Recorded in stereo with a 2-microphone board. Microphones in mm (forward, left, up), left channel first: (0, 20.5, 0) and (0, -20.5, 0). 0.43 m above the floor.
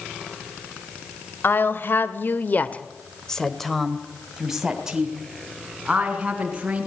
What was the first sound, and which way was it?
A woman speaking, 55° left (ahead or behind).